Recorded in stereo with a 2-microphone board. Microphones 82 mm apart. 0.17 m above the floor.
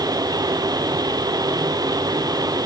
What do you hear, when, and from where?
Only background noise.